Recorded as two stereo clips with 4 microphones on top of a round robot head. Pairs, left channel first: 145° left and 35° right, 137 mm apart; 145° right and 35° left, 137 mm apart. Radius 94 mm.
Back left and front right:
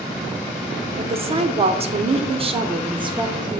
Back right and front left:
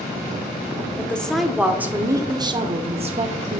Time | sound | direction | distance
1.0 | a woman speaking | 70° right | 1.1 m